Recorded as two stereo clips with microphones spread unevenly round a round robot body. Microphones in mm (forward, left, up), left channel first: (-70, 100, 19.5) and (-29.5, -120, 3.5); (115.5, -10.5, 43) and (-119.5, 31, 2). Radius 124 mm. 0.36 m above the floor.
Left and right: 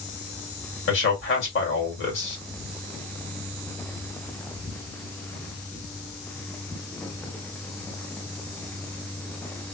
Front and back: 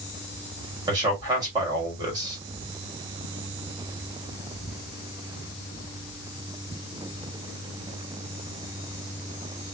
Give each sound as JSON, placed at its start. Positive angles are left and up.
{"t": 0.9, "sound": "a man speaking", "azimuth_deg": 110, "distance_m": 2.0}